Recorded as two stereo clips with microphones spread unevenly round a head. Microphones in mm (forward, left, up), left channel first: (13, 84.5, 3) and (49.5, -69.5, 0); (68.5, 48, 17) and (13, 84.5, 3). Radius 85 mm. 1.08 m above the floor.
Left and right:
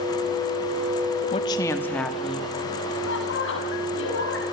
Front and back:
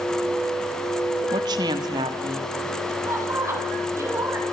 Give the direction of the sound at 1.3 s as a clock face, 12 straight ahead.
6 o'clock.